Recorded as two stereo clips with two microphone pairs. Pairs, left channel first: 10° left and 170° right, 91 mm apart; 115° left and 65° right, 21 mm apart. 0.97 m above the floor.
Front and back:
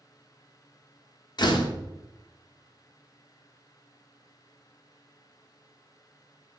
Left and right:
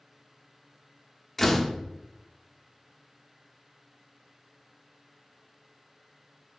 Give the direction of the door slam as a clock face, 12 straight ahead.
10 o'clock.